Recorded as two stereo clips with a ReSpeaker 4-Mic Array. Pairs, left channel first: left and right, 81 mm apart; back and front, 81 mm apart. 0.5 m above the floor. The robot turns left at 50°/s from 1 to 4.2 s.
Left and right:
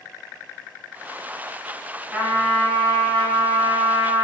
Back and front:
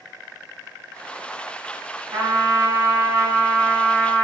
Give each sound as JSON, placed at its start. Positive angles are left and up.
{"t": 2.1, "sound": "a trumpet", "azimuth_deg": -20, "distance_m": 1.4}